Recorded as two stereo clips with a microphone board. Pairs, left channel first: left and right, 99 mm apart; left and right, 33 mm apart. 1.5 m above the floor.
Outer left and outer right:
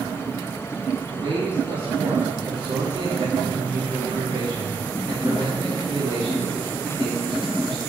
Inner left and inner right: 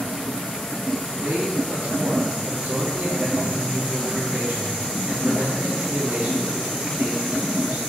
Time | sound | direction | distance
1.1 | a man speaking | 60° right (ahead or behind) | 3 m